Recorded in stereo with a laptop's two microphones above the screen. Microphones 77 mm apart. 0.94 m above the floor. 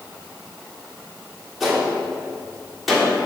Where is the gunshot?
Centre (ahead or behind), 2.5 m.